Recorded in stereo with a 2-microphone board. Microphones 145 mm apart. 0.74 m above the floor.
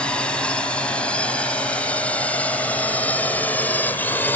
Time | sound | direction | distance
0.0 | a drone | 5° left (ahead or behind) | ?